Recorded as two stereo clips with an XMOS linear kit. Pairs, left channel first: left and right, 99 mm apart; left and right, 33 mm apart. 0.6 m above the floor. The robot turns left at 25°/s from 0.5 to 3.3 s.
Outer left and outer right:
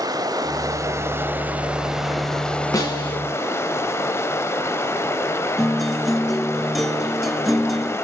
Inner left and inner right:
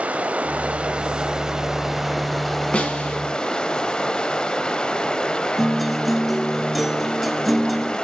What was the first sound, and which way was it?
Running water, 140° right.